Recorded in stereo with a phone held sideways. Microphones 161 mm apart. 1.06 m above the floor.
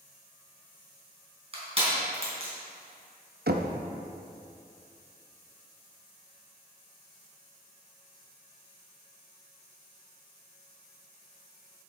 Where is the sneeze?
I don't hear a sneeze.